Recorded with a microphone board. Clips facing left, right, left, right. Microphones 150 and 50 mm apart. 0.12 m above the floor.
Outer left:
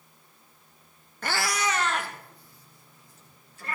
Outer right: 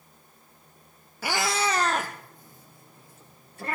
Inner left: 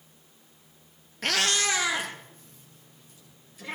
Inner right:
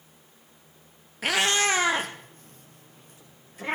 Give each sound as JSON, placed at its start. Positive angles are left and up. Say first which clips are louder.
{"t": 1.2, "sound": "a cat meowing", "louder": "outer right 2 dB, inner right 3 dB", "side_deg": -5, "distance_m": 0.9}